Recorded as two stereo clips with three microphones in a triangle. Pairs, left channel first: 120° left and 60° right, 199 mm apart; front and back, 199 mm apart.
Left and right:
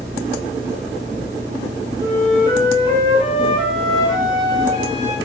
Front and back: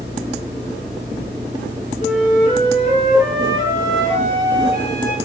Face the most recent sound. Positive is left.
turn(degrees=-20)